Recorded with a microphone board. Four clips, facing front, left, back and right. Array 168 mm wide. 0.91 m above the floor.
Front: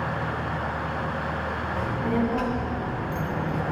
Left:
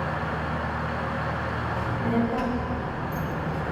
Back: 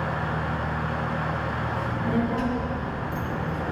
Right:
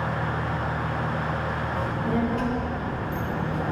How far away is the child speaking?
About 3 m.